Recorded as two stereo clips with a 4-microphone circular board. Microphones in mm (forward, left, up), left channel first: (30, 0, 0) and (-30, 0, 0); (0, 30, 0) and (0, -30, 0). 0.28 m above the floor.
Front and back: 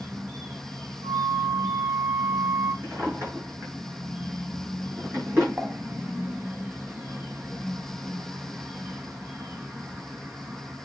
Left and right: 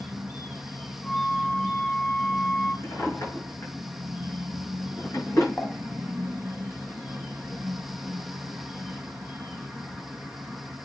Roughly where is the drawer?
Behind left.